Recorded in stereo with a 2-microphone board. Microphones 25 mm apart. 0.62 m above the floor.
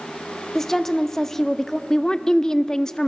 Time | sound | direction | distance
0.6 | a woman speaking | 15° left (ahead or behind) | 0.8 m
1.9 | a woman speaking | 25° left (ahead or behind) | 0.6 m